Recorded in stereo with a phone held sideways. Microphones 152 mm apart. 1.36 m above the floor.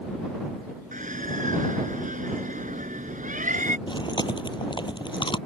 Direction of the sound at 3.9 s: 30° left (ahead or behind).